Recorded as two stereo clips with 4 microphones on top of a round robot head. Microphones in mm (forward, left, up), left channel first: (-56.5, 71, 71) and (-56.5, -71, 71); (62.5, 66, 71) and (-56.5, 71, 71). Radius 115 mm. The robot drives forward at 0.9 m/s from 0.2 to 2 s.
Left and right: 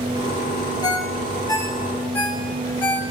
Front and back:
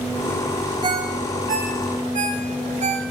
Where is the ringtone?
140° left, 0.8 m; by 3.0 s 165° left, 1.7 m.